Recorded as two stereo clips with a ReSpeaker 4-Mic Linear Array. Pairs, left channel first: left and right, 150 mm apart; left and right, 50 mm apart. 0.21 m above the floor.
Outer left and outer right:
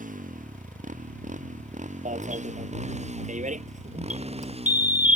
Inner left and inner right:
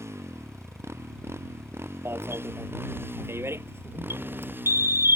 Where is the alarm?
55° right (ahead or behind).